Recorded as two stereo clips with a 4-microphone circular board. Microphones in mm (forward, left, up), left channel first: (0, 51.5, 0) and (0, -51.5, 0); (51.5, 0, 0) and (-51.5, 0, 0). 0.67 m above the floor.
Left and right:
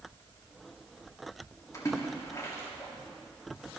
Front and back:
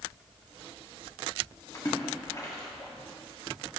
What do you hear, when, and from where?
1.7 s a splash: 45° left, 1.6 m